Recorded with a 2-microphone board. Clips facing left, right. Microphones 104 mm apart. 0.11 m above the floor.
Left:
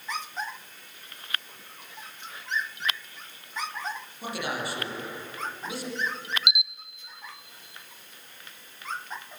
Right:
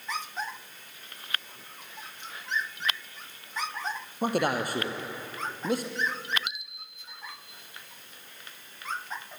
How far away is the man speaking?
About 3.5 m.